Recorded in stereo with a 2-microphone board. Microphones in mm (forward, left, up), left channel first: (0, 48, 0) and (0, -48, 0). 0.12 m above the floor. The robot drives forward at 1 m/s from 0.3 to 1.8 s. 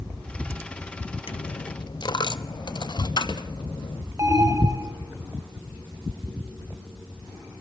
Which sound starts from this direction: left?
A dropped coin, at 1.3 s.